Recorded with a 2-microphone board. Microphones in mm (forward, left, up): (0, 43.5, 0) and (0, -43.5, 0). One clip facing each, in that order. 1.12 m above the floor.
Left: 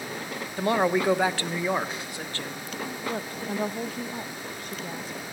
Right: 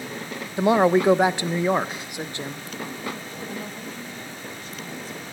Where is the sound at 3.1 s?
55° left (ahead or behind), 1.5 m.